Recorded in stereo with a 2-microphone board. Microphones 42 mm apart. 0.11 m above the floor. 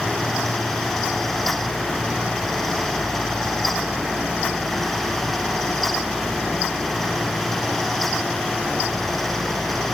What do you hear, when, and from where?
Only background noise.